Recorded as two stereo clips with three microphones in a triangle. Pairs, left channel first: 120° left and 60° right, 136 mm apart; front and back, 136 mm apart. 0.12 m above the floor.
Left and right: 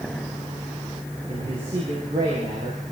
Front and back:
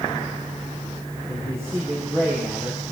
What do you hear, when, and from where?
1.3 s a man speaking: 110° right, 8.5 m